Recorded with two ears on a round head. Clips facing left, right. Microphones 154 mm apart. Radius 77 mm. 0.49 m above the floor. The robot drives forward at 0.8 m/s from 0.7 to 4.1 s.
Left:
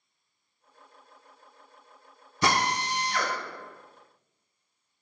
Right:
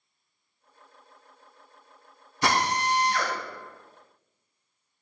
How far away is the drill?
About 3.5 m.